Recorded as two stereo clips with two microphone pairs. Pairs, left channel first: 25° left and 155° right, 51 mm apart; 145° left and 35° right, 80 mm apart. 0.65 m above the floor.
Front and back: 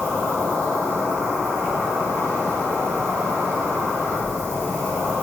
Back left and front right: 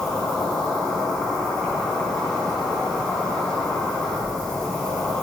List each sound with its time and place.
0.0 s an insect: 135° right, 4 m